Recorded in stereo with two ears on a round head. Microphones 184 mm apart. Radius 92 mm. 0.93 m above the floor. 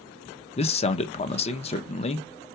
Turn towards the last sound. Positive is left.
turn(degrees=30)  # may be behind; listen again after turning